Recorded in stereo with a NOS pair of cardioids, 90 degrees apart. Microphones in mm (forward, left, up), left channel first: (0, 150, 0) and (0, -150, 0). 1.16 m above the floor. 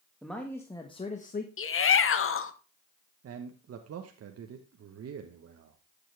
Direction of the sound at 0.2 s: Straight ahead.